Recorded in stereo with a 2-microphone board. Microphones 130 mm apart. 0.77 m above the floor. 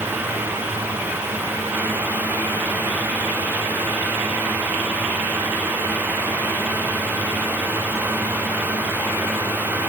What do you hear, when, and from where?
Only background noise.